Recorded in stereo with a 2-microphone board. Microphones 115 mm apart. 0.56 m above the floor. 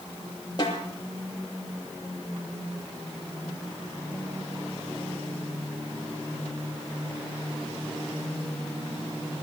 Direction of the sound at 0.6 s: 40° left (ahead or behind).